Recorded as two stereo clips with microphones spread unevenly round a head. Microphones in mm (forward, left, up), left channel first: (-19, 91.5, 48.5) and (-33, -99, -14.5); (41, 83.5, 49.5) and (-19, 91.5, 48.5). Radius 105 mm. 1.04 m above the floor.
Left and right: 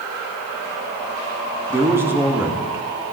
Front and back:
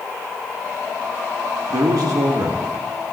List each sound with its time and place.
1.7 s a man speaking: 170° right, 1.8 m